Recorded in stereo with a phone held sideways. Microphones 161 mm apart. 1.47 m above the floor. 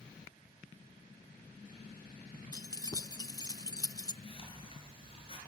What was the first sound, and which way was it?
Keys jangling, 25° left (ahead or behind).